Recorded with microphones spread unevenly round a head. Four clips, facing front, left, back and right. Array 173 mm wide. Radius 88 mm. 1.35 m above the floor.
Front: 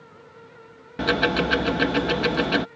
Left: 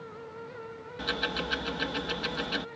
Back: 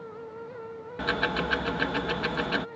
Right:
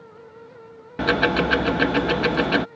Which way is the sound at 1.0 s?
60° right.